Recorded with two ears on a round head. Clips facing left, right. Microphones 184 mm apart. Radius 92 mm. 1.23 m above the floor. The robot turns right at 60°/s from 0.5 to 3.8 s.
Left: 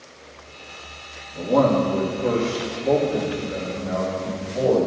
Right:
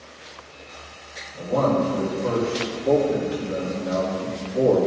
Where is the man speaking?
95° left, 3 m; by 4.8 s 115° right, 3 m.